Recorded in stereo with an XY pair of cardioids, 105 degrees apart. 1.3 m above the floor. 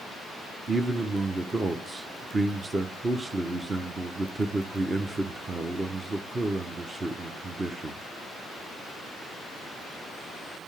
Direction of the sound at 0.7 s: 30° right.